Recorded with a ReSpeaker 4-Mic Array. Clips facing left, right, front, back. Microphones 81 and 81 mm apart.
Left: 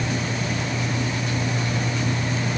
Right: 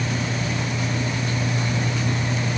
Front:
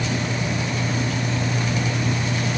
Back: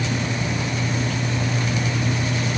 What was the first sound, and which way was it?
Only background noise.